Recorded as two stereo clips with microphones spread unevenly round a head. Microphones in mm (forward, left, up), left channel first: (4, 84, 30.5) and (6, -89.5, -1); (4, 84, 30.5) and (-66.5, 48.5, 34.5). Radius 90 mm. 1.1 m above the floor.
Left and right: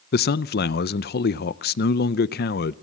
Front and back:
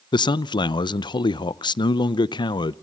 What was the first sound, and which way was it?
A man speaking, 55° left.